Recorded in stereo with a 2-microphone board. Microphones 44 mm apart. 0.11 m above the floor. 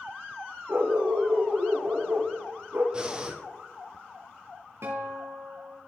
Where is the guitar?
80° right, 3.5 m.